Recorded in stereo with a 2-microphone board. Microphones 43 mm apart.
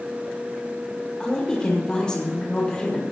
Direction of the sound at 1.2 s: 20° left (ahead or behind).